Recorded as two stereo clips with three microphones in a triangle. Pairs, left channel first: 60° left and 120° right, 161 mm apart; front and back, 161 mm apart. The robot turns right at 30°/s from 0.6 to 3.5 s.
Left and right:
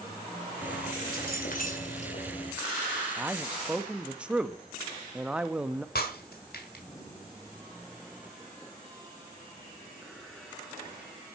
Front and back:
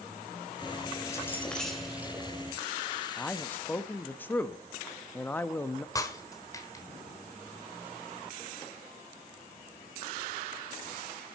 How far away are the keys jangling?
About 2.5 m.